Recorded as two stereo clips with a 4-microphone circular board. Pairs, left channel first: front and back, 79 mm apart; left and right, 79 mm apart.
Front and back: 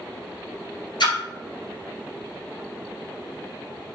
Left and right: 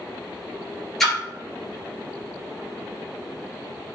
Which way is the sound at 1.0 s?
5° left.